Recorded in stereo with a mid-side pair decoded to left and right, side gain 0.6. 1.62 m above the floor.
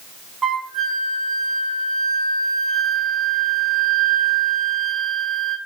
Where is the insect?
I don't hear an insect.